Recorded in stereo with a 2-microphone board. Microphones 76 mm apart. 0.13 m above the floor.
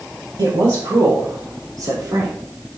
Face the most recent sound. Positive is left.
turn(degrees=-65)  # may be behind; listen again after turning